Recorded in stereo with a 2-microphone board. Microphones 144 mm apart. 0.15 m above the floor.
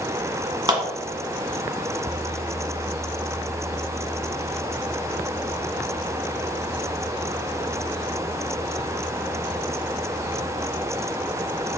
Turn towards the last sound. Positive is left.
turn(degrees=-30)  # may be behind; listen again after turning